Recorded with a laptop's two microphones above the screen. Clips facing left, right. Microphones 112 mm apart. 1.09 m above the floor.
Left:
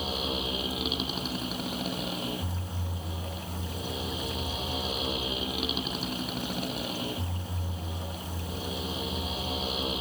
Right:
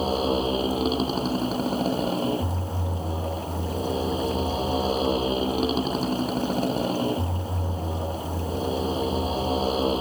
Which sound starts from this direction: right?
A motorcycle, at 0.0 s.